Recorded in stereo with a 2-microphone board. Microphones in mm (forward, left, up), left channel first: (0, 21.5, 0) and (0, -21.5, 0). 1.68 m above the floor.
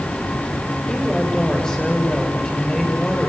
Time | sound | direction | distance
0.9 | a woman speaking | 20° left (ahead or behind) | 7.5 m